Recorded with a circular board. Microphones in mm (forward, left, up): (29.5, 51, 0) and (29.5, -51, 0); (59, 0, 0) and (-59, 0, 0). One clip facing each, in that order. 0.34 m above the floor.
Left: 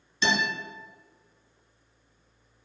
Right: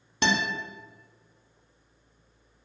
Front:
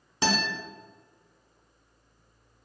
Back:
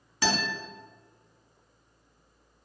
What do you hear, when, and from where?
0.2 s a guitar: 65° right, 0.6 m